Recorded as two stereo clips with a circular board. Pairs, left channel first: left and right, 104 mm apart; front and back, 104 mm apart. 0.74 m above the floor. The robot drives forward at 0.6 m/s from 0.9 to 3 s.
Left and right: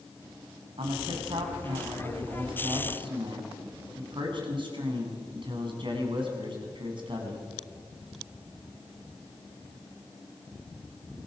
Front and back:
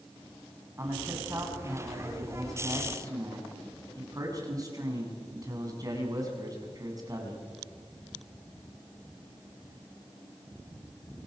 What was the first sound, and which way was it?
A man speaking, 115° right.